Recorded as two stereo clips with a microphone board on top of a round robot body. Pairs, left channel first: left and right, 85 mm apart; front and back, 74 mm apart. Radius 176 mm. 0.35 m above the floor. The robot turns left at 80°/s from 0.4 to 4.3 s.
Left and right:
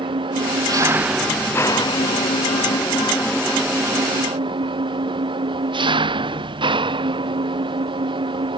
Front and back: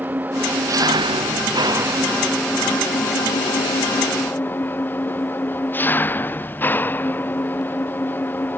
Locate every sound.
0.0 s an engine running: 115° right; by 8.6 s 65° right